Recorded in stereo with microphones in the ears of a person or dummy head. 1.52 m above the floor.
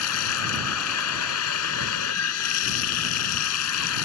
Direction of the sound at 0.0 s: 75° left (ahead or behind).